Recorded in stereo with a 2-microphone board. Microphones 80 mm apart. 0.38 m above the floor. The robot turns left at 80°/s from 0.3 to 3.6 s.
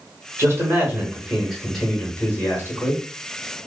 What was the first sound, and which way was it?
A man speaking, 80° right.